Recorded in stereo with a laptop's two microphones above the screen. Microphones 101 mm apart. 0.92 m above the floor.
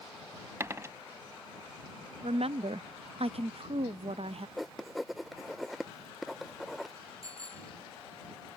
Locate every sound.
0.6 s a dropped coin: 25° right (ahead or behind)
2.2 s a woman speaking: 65° right (ahead or behind)
4.6 s writing: centre (ahead or behind)
7.2 s a bicycle bell: 35° right (ahead or behind)